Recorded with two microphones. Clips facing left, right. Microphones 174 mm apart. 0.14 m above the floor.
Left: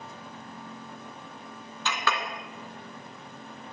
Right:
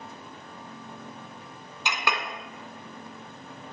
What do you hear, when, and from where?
1.9 s a clink: 15° right (ahead or behind), 0.9 m